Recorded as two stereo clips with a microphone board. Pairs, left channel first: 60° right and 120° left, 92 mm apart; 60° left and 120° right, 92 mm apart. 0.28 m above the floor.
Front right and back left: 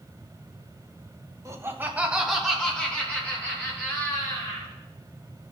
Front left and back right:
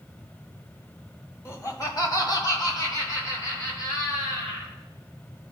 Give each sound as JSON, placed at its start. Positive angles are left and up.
{"t": 1.4, "sound": "laughter", "azimuth_deg": 100, "distance_m": 1.4}